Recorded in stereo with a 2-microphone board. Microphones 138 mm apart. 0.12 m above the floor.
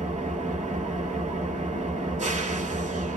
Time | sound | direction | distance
0.0 | an engine running | 60° right (ahead or behind) | 1.3 m